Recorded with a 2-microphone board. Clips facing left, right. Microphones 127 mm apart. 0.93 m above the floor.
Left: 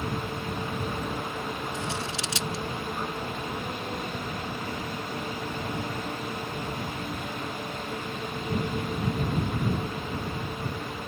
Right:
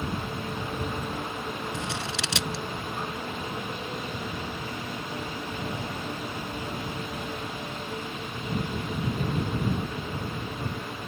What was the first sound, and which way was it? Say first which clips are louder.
Scissors: even; 75° right (ahead or behind).